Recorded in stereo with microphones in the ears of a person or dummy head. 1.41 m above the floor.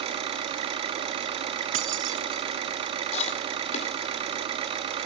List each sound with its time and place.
0.0 s an engine running: 35° right (ahead or behind), 1.5 m
1.7 s keys jangling: 40° right (ahead or behind), 1.0 m
3.1 s chewing: 40° left (ahead or behind), 2 m